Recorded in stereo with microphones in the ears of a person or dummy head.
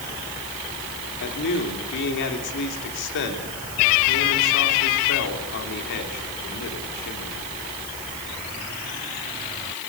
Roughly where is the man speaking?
Left.